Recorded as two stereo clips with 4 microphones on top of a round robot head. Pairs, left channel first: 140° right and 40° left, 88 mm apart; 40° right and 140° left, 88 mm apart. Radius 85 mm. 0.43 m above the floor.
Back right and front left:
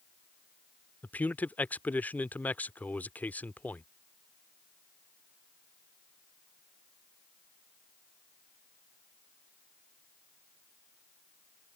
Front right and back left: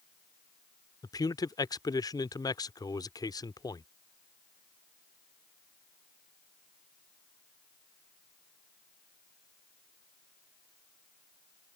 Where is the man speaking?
70° right.